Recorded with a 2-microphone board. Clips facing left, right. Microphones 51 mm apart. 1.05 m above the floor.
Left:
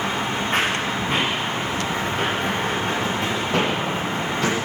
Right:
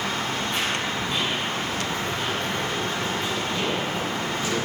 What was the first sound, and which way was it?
Running footsteps, 50° left (ahead or behind).